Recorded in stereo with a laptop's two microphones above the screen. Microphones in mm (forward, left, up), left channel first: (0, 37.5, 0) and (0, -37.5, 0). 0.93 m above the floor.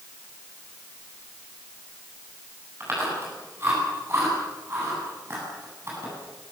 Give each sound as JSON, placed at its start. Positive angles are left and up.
{"t": 2.8, "sound": "chewing", "side_deg": -35, "distance_m": 9.5}